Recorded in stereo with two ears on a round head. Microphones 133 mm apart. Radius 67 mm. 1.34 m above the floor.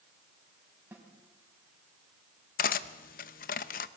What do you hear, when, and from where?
0.9 s a snare drum: 10° right (ahead or behind), 4 m
2.6 s cutlery clinking: 60° left (ahead or behind), 0.8 m